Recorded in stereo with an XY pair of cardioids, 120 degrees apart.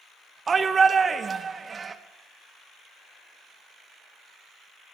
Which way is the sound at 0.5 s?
30° right.